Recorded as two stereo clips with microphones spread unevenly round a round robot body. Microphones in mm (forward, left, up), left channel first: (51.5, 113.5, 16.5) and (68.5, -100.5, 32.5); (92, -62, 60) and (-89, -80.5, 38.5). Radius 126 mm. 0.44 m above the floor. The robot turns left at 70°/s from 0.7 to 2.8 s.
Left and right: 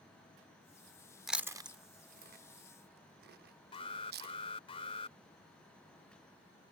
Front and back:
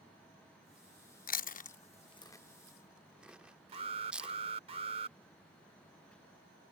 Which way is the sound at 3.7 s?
150° left.